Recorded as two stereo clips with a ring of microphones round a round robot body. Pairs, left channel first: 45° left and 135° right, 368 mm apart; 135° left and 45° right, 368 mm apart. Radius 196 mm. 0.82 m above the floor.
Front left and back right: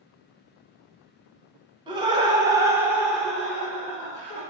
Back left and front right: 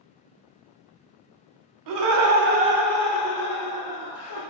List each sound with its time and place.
1.9 s laughter: 60° right, 0.7 m; by 4.4 s 125° left, 1.0 m